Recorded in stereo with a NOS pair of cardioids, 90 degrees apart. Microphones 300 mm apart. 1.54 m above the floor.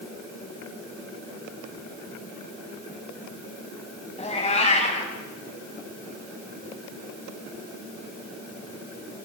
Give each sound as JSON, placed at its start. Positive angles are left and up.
{"t": 4.2, "sound": "a cat meowing", "azimuth_deg": 20, "distance_m": 5.5}